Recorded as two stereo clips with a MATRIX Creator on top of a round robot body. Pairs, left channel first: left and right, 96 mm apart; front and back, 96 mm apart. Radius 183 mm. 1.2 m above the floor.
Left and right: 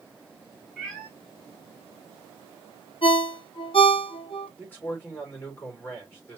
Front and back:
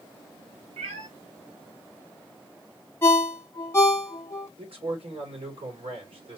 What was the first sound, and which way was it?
A cat meowing, 175° left.